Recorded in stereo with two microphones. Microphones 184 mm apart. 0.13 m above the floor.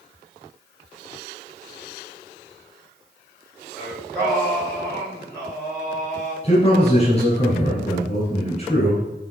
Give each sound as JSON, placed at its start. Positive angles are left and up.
{"t": 3.8, "sound": "singing", "side_deg": 5, "distance_m": 3.0}
{"t": 6.4, "sound": "a man speaking", "side_deg": 35, "distance_m": 3.0}